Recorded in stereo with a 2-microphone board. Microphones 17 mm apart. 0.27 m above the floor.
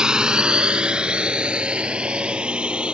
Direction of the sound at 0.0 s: 45° right (ahead or behind).